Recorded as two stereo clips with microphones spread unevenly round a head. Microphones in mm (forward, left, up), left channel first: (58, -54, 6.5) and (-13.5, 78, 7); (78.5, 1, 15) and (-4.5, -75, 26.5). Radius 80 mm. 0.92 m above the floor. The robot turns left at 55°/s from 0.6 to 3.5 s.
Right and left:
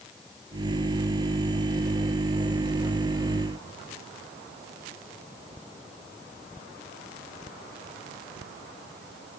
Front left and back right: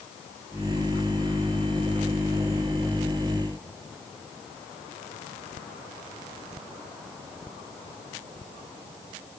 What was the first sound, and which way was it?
Only background noise.